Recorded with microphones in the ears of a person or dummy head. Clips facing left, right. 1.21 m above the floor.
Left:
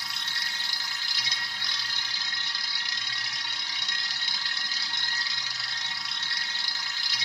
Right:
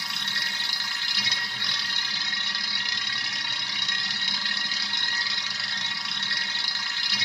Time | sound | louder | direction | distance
0.0 | a machine running | right 3 dB | 60° right (ahead or behind) | 1.1 m